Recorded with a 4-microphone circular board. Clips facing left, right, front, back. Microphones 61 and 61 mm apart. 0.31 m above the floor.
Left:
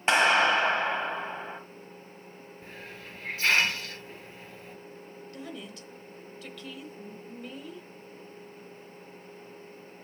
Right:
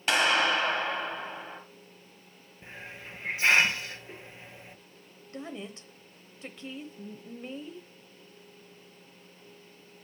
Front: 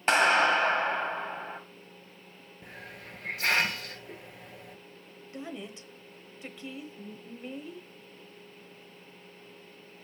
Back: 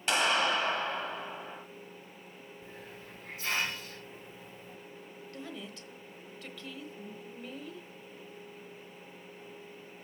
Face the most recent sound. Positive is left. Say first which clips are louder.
# right 3 dB, front 4 dB
turn(degrees=-55)